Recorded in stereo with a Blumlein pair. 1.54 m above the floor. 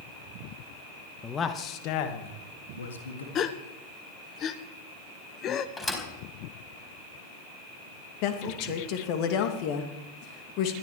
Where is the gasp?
30° left, 1.0 m.